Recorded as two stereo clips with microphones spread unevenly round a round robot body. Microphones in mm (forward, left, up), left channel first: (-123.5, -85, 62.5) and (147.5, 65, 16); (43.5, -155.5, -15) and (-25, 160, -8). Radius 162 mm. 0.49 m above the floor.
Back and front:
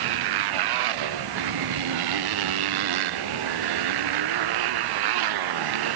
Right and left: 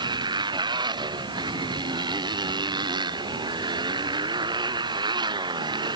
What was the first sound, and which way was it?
A motorcycle, 25° left.